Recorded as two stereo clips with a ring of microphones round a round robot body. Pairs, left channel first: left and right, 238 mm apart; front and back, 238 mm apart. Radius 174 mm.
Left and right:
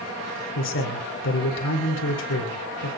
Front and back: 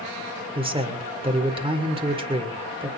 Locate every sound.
0.6 s a man speaking: 115° left, 2.5 m